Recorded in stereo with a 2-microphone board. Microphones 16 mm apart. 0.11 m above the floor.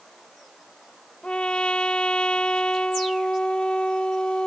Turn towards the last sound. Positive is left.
turn(degrees=60)  # may be behind; listen again after turning